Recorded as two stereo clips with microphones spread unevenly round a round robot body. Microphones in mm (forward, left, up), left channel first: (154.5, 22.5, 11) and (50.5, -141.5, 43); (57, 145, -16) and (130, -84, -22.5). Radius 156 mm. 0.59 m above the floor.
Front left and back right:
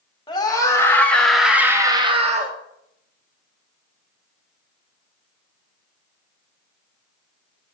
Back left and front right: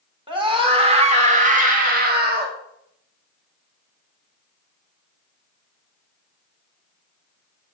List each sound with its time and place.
0.3 s a scream: 5° right, 2.5 m; by 2.6 s 85° right, 1.4 m